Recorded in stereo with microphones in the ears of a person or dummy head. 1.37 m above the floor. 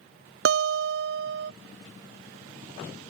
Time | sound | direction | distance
0.5 | a guitar | 60° right (ahead or behind) | ?